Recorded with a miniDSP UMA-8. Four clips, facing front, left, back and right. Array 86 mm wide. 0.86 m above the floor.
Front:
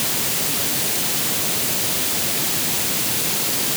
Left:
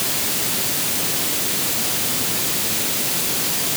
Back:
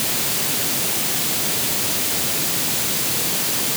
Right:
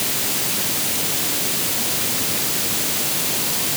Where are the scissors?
I don't hear scissors.